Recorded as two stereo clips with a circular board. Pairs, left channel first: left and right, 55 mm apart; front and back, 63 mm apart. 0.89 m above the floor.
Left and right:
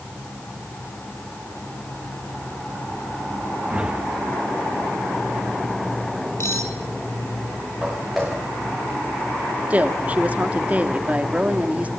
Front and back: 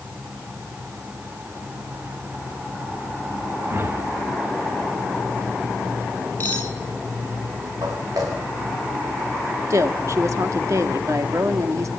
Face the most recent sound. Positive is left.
turn(degrees=-150)